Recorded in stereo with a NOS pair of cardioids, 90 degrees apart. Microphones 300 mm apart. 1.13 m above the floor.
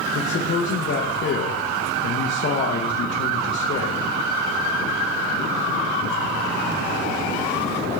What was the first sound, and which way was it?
A man speaking, 40° left.